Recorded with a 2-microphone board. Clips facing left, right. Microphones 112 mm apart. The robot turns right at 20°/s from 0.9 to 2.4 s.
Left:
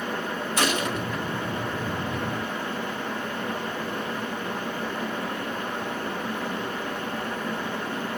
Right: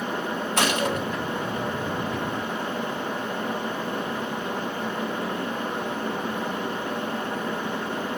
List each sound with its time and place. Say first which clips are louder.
0.6 s a gunshot: right 2 dB; 60° right (ahead or behind), 3 m